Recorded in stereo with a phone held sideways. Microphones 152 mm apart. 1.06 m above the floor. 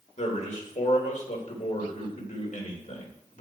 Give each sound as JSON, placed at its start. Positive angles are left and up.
{"t": 0.2, "sound": "a man speaking", "side_deg": 55, "distance_m": 3.5}